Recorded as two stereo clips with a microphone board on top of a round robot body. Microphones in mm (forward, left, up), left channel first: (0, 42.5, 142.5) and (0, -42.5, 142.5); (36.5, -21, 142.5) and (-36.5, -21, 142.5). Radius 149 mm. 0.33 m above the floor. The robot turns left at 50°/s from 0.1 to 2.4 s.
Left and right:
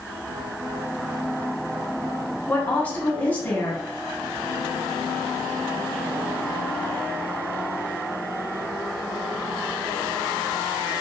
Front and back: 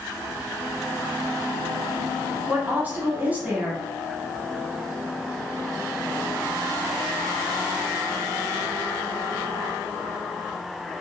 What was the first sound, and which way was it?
A woman speaking, 140° left.